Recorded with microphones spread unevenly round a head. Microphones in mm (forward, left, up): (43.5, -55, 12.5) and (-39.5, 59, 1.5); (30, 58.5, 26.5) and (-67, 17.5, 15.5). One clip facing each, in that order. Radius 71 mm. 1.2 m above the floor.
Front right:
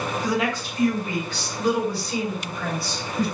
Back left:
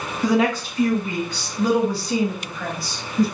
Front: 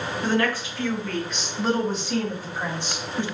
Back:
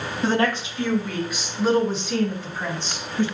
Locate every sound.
0.2 s a woman speaking: 140° left, 2.5 m; by 3.2 s 95° left, 3.5 m